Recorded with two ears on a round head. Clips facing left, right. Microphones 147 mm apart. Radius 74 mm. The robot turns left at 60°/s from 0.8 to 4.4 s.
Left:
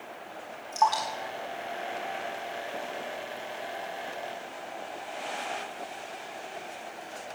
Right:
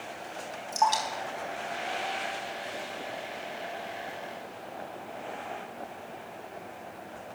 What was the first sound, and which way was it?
Dripping, 20° right (ahead or behind).